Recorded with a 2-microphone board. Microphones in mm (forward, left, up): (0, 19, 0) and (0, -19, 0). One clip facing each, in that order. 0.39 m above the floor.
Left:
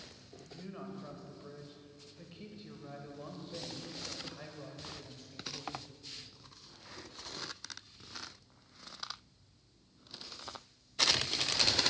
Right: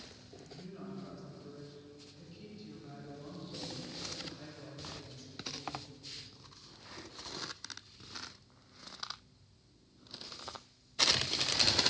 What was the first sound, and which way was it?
A woman speaking, 40° left (ahead or behind).